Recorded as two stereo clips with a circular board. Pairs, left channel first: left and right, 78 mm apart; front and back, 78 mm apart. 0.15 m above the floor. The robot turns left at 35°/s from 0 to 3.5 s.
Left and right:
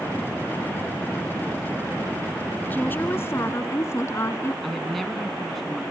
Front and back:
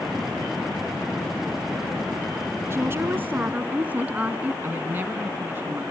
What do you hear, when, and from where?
2.7 s a woman speaking: 145° left, 1.6 m; by 4.5 s 120° left, 1.6 m
4.6 s a woman speaking: straight behind, 1.3 m